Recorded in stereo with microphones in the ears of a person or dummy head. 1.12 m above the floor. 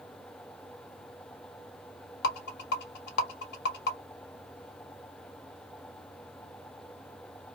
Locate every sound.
2.2 s a rattle: 60° left (ahead or behind), 1.0 m